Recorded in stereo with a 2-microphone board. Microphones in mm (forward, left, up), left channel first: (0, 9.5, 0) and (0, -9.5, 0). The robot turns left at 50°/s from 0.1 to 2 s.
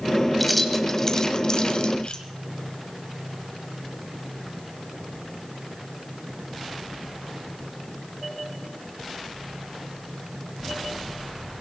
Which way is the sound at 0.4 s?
5° right (ahead or behind).